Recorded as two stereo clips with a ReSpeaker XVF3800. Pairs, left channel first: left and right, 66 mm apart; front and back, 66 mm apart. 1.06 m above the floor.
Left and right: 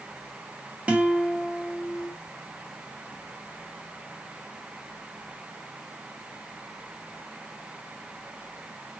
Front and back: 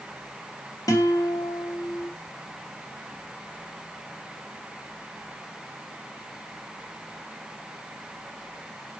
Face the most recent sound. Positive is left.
turn(degrees=-20)